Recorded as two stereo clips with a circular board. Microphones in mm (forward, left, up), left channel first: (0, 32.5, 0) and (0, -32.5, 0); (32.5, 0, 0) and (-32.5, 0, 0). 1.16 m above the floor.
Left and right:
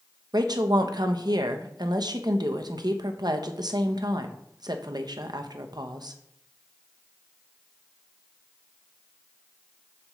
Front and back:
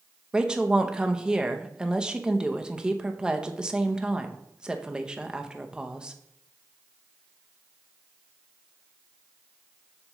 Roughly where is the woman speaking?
Right.